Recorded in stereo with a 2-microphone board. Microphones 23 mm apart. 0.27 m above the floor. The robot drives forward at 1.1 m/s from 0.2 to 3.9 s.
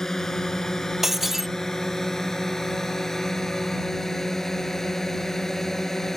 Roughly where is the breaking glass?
Centre.